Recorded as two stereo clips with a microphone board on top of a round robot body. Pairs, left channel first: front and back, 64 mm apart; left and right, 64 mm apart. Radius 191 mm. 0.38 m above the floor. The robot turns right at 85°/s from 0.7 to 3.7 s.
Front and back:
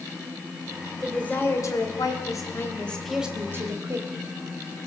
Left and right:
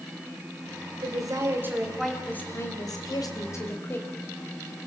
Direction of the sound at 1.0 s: 90° right.